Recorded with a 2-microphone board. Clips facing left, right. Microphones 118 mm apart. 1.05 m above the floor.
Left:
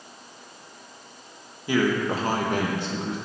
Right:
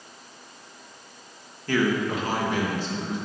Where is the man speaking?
10° left (ahead or behind), 1.3 m; by 3.2 s 70° left (ahead or behind), 1.5 m.